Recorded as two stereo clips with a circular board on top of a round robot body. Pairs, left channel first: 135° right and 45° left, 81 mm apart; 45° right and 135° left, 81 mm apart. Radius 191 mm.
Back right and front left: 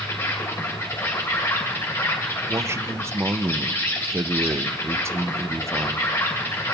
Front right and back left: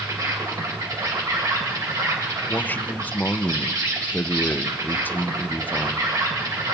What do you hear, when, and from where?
0.0 s an insect: 170° left, 2 m
2.5 s a man speaking: 10° left, 0.6 m